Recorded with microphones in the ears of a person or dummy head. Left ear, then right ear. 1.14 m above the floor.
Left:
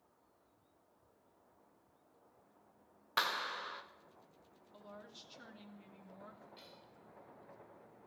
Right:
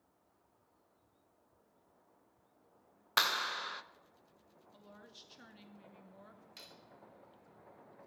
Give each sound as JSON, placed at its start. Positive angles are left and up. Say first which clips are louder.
{"t": 3.2, "sound": "a clap", "louder": "right 4 dB", "side_deg": -20, "distance_m": 0.8}
{"t": 4.7, "sound": "a woman speaking", "louder": "left 3 dB", "side_deg": -5, "distance_m": 2.5}
{"t": 6.6, "sound": "cutlery clinking", "louder": "right 3 dB", "side_deg": -85, "distance_m": 1.9}